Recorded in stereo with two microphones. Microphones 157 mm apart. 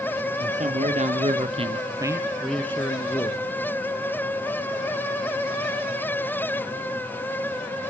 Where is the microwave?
No microwave in this recording.